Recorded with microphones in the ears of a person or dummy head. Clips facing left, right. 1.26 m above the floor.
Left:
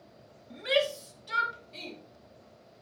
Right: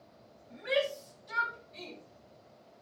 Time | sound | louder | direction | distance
0.5 | a shout | left 3 dB | 50° left (ahead or behind) | 3 m